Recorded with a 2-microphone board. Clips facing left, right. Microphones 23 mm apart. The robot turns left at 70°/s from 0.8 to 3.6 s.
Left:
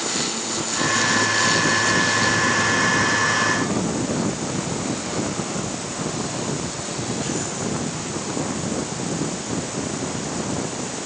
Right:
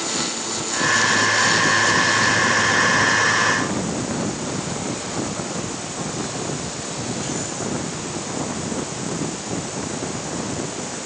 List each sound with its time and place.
Only background noise.